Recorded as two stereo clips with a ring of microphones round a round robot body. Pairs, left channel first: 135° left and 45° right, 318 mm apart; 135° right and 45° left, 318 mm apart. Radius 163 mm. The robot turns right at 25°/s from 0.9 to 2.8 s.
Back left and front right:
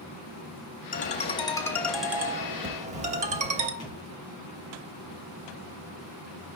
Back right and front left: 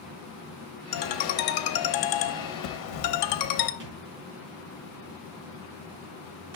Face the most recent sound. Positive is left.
turn(degrees=55)